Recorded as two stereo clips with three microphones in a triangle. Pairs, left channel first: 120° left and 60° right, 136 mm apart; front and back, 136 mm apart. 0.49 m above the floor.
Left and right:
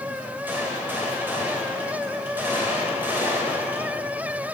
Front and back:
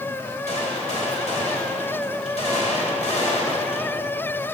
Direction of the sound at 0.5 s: 15° left.